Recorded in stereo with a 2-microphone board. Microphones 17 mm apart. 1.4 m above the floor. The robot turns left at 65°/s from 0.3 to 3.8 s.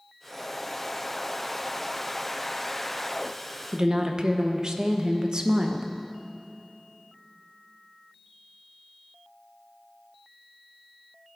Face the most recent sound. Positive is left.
turn(degrees=-50)  # may be behind; listen again after turning